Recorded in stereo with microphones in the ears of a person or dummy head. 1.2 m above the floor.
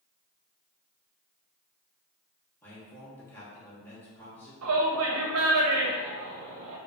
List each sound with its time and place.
2.6 s a man speaking: 15° left (ahead or behind), 1.4 m
4.6 s a shout: 80° right, 0.7 m